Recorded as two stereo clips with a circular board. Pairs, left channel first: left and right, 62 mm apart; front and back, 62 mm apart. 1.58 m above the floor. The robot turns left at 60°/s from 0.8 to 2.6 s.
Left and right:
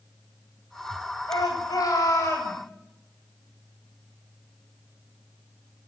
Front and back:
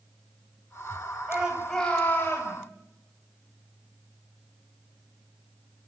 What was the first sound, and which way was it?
A shout, 110° left.